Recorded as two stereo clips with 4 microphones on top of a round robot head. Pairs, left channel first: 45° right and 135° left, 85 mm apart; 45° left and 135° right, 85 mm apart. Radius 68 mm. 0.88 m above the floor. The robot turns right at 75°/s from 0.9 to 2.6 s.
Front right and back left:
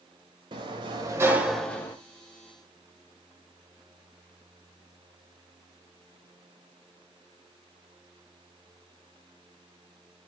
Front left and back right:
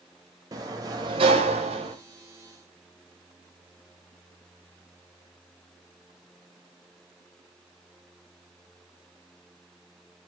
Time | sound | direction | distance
0.5 | a sliding door | 175° left | 1.3 m